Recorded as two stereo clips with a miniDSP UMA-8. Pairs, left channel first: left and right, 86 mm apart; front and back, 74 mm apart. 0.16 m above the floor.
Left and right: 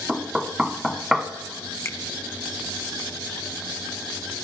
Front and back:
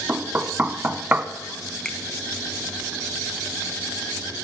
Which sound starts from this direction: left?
A finger snap, at 1.9 s.